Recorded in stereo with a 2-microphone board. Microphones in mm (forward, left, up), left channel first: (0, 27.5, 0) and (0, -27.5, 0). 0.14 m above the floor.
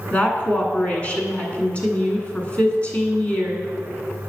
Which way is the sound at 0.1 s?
25° left (ahead or behind).